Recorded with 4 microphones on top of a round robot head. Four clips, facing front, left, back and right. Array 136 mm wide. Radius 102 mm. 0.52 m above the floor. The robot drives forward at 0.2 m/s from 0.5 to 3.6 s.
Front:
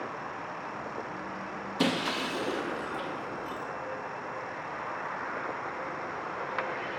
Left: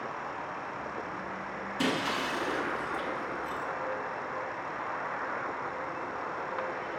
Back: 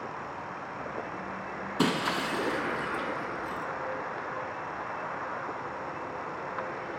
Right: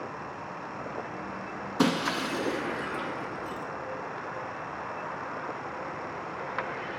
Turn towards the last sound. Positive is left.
turn(degrees=-140)